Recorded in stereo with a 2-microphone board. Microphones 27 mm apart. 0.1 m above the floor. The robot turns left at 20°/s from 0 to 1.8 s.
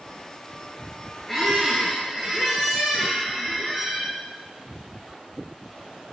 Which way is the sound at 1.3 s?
10° left (ahead or behind).